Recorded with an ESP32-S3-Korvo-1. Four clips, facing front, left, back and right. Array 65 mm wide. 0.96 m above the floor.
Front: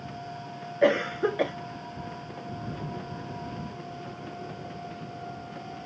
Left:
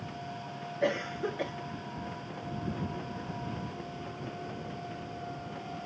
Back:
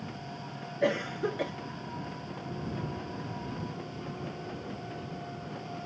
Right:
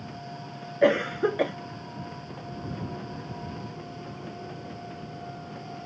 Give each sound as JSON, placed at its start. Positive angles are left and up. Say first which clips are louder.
{"t": 0.8, "sound": "a cough", "louder": "right 9 dB, front 6 dB", "azimuth_deg": -50}